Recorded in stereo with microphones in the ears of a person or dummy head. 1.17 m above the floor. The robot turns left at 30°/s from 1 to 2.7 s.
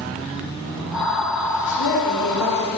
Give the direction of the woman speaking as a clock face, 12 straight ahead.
8 o'clock.